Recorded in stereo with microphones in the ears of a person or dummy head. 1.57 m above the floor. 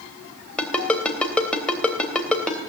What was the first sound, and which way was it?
A ringtone, 5° left (ahead or behind).